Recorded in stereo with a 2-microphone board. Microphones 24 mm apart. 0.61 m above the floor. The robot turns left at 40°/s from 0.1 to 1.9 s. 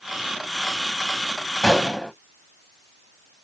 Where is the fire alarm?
No fire alarm in this recording.